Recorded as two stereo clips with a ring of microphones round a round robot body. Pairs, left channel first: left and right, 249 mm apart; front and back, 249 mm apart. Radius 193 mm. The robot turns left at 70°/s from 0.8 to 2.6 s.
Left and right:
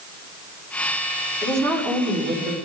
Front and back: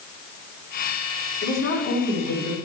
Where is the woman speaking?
30° left, 4.5 m; by 2.5 s 50° right, 4.5 m.